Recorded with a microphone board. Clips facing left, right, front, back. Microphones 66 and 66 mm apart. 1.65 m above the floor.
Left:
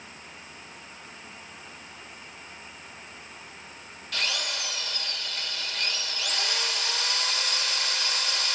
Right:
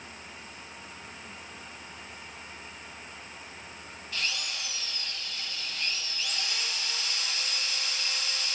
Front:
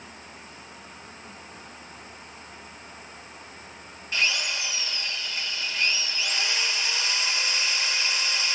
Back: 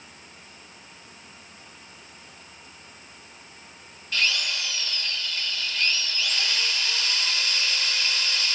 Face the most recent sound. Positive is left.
turn(degrees=70)